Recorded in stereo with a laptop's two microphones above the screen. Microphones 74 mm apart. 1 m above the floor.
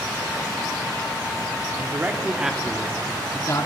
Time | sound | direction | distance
1.8 | a man speaking | 30° right (ahead or behind) | 2.5 m